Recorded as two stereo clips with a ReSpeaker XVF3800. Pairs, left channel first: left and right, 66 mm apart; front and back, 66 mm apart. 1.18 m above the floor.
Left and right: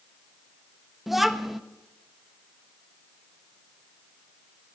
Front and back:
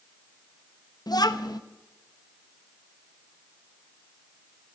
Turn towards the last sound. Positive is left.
turn(degrees=-5)